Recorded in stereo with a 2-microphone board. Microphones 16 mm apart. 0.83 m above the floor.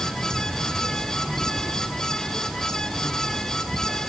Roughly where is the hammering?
I don't hear hammering.